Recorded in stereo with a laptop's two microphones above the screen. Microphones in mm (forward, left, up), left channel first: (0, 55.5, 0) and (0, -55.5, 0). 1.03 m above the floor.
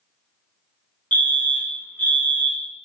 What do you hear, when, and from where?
1.1 s a fire alarm: 15° left (ahead or behind), 2.5 m